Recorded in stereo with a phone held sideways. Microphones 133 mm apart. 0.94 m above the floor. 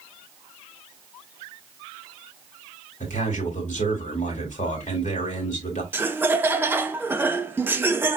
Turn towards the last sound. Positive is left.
turn(degrees=-15)  # may be behind; listen again after turning